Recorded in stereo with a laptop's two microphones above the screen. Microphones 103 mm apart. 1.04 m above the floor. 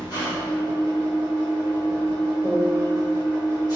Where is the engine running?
40° left (ahead or behind), 0.8 m.